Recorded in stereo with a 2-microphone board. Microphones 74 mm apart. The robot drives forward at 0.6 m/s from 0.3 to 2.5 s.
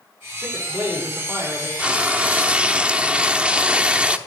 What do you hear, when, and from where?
0.4 s a man speaking: 25° right (ahead or behind), 5.5 m; by 1.7 s 20° right (ahead or behind), 6 m
1.8 s frying: 15° right (ahead or behind), 1.0 m